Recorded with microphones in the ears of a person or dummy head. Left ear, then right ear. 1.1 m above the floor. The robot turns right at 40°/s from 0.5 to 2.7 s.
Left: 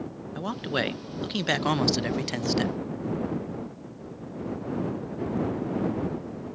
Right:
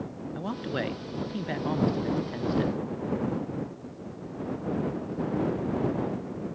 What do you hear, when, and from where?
0.3 s a man speaking: 10° left; by 2.8 s 100° left